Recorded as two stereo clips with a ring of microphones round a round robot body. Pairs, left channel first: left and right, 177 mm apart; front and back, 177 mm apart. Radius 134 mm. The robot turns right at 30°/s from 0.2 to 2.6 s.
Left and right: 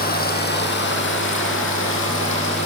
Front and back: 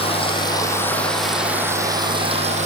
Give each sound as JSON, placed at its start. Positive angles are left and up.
{"t": 0.0, "sound": "running water", "azimuth_deg": 60, "distance_m": 7.5}